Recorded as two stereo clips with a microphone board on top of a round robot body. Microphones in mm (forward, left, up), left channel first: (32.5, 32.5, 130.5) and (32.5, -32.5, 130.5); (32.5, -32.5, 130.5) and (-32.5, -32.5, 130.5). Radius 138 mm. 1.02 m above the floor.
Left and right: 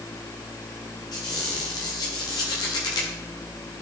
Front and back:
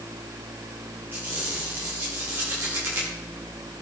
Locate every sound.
1.1 s a squeak: 115° left, 1.2 m